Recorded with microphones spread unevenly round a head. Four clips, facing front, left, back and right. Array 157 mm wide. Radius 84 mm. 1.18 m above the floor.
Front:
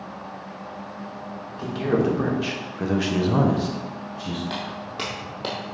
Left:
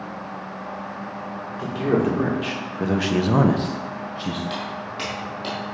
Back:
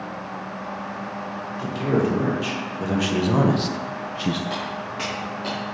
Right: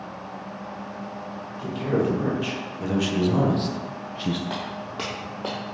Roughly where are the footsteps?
Right.